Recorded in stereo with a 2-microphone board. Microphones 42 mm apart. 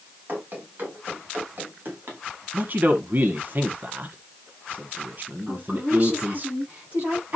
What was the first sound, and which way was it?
Running footsteps, 40° right (ahead or behind).